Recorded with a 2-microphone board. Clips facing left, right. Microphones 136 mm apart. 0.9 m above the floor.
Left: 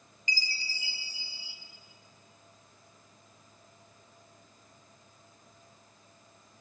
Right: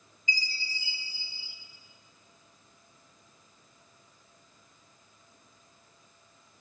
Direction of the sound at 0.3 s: 80° left.